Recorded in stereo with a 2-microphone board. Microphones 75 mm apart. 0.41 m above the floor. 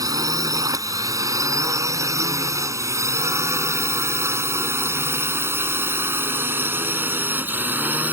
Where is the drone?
50° right (ahead or behind); by 8.1 s 25° right (ahead or behind).